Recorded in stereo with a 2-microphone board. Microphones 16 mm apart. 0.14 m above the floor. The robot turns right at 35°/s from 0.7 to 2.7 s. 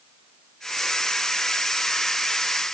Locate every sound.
Only background noise.